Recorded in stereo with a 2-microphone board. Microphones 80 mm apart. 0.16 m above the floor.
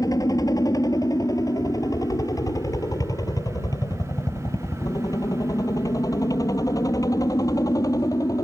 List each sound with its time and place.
0.0 s a helicopter: 50° left (ahead or behind); by 8.4 s 45° left (ahead or behind)